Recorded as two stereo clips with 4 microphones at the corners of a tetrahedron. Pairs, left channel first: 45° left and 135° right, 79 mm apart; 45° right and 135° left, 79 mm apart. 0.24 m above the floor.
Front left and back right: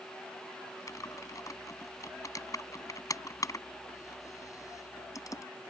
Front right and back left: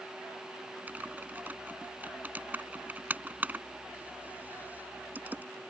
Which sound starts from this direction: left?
Typing on a keyboard, at 0.9 s.